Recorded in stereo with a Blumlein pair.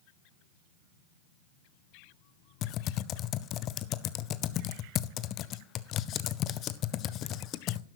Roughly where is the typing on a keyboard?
Ahead left.